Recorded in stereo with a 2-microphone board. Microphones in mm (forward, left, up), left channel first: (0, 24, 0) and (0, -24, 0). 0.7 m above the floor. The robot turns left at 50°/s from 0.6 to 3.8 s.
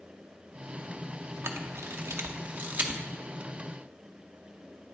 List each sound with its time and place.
1.4 s a camera shutter: 60° right (ahead or behind), 0.6 m; by 3.0 s 30° right (ahead or behind), 0.6 m